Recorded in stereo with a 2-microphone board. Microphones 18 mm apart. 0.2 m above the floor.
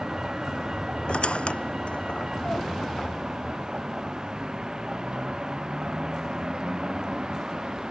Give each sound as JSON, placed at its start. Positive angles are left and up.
{"t": 0.0, "sound": "a vehicle", "side_deg": -45}
{"t": 1.1, "sound": "a squeak", "side_deg": 85}